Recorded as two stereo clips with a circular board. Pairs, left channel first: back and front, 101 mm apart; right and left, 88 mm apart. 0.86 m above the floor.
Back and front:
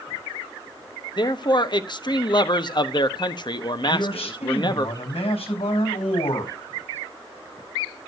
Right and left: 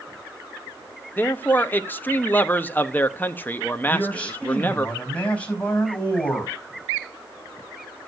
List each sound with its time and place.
1.2 s a man speaking: 155° right, 1.0 m
3.9 s a man speaking: 165° right, 5 m